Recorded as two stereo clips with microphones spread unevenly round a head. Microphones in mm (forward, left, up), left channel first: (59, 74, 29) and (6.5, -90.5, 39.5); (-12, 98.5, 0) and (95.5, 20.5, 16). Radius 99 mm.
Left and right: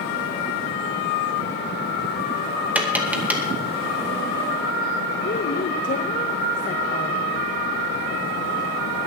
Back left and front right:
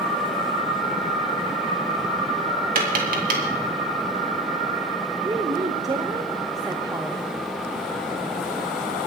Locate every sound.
2.8 s tapping: 25° right, 2 m
5.2 s a woman speaking: 25° left, 1.0 m